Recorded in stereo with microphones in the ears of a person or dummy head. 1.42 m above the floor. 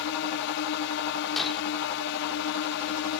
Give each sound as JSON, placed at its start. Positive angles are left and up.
{"t": 0.0, "sound": "a drone", "side_deg": 65}
{"t": 1.4, "sound": "breaking glass", "side_deg": 5}